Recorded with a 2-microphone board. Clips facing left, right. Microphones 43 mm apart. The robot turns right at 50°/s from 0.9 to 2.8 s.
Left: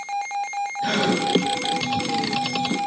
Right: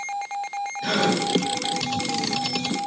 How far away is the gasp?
About 1.8 m.